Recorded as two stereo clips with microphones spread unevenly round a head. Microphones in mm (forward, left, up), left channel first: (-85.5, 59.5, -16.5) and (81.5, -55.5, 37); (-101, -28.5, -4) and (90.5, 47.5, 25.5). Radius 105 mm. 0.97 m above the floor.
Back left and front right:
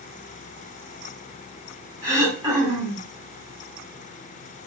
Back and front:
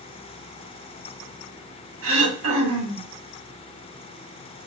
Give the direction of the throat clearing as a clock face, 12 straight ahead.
11 o'clock.